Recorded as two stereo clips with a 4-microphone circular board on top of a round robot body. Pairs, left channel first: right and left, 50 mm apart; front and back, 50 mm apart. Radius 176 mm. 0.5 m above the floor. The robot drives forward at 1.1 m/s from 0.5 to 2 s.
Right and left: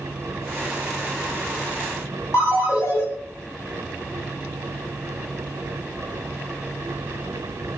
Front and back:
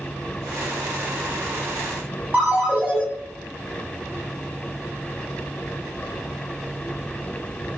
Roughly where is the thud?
No thud in this recording.